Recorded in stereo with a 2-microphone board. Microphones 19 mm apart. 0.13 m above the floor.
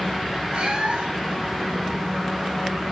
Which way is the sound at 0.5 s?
50° right (ahead or behind).